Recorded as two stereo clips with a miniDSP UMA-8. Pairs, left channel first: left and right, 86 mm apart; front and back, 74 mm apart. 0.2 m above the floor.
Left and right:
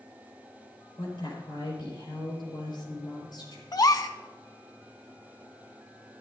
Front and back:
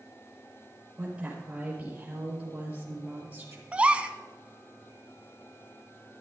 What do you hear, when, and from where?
1.0 s a woman speaking: 100° left, 4.5 m; by 3.6 s 110° left, 3 m
3.7 s a gasp: 110° left, 0.5 m